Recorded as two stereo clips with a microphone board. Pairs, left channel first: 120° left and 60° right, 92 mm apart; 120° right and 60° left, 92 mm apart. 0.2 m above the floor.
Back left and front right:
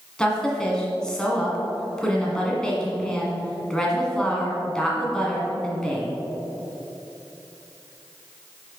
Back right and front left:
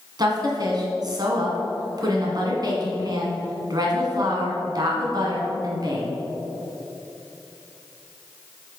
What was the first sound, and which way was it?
A woman speaking, 40° left.